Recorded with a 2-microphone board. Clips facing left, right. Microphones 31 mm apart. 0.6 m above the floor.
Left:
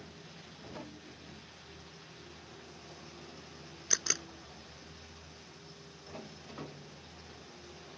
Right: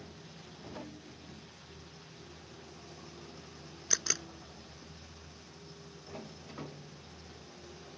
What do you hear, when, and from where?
3.9 s a camera shutter: 5° left (ahead or behind)